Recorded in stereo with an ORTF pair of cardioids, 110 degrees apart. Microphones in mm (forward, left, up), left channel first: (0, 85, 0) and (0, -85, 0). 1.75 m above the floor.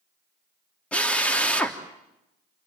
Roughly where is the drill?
Ahead.